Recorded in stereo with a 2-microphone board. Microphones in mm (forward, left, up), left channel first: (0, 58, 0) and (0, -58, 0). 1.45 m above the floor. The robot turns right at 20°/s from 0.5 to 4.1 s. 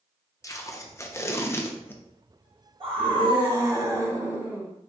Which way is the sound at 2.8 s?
50° right (ahead or behind).